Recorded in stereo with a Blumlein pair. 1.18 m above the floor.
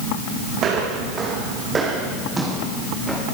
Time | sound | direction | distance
0.6 | footsteps | 30° right | 4.5 m